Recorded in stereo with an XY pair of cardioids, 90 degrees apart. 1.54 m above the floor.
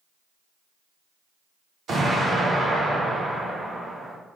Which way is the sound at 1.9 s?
60° right.